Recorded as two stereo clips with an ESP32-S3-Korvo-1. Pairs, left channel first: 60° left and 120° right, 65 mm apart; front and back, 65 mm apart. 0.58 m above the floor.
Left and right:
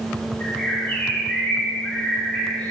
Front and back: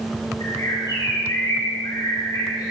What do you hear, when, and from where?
0.4 s a bird: 15° right, 4.5 m